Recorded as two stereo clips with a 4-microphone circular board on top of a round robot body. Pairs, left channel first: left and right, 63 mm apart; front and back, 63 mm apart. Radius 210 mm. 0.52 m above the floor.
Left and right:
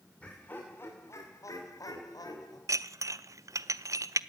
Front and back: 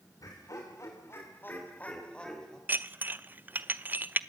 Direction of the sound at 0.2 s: 20° left.